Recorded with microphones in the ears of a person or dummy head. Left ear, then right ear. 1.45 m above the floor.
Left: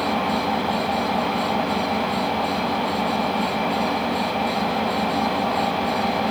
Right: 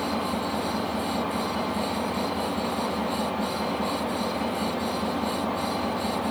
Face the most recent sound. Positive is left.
turn(degrees=45)  # may be behind; listen again after turning